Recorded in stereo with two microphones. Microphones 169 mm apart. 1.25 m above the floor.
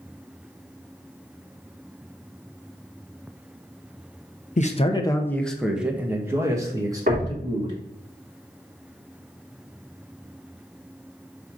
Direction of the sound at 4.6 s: 50° left (ahead or behind).